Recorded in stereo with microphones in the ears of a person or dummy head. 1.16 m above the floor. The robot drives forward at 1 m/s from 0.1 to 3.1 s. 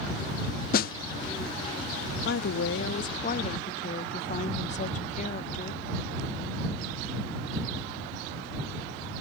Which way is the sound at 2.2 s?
55° left (ahead or behind).